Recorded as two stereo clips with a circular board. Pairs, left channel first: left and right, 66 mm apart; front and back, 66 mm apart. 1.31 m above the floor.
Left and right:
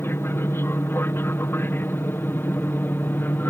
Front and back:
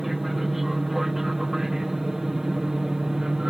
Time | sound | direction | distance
0.0 | an aircraft | 95° left | ?